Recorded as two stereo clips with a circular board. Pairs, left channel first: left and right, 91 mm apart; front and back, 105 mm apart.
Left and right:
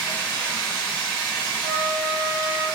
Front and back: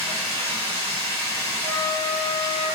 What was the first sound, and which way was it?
Running water, 165° left.